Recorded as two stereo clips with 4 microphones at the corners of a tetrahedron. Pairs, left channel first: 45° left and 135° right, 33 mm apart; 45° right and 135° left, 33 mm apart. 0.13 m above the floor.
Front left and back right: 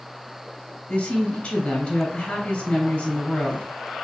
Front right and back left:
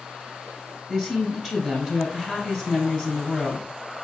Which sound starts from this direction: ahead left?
A woman speaking, at 0.9 s.